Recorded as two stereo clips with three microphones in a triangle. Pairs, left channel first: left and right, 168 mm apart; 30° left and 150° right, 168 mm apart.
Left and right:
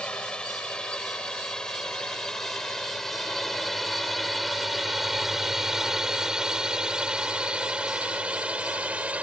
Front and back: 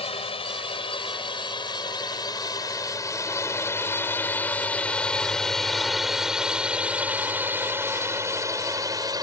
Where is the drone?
10° left; by 9.2 s 160° right.